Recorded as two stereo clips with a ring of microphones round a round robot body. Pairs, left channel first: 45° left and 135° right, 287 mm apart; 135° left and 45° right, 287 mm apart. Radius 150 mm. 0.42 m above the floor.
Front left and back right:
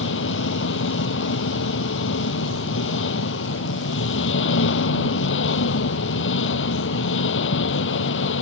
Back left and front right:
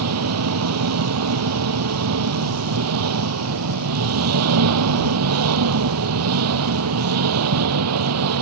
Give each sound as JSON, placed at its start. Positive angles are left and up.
{"t": 0.0, "sound": "an engine running", "azimuth_deg": -5}